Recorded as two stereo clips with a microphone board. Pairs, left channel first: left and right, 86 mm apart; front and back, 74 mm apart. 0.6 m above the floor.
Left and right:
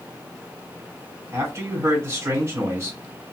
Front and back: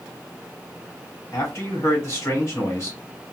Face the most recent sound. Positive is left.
turn(degrees=-40)